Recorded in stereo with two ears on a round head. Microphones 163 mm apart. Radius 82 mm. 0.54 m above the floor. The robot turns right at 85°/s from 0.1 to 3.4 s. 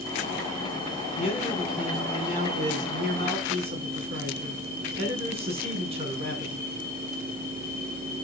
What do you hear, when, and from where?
1.2 s a man speaking: 135° left, 6 m; by 6.7 s 35° right, 6 m